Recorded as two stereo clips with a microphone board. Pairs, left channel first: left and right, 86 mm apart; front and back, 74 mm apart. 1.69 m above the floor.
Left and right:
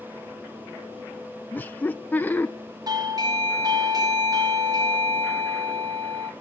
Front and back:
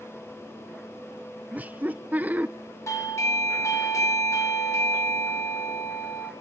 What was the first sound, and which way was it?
Laughter, 135° left.